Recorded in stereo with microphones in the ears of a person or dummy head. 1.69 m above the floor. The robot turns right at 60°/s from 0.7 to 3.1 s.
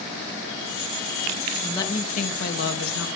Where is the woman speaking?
15° left, 2.5 m; by 3.1 s 100° left, 2.5 m.